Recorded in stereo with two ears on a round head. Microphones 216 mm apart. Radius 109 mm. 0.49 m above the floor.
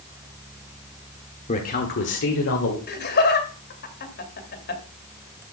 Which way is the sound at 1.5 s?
30° left (ahead or behind).